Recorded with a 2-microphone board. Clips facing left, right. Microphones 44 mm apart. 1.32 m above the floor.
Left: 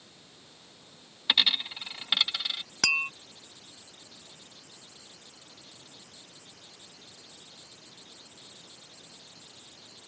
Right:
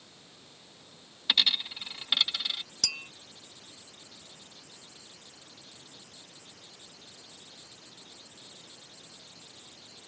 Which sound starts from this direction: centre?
A dropped coin, at 1.3 s.